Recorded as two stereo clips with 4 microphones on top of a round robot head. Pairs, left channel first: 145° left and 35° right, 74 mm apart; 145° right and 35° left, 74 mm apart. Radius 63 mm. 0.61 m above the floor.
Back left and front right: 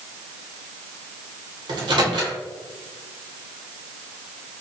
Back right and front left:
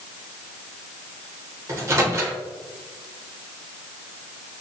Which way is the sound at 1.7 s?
20° right.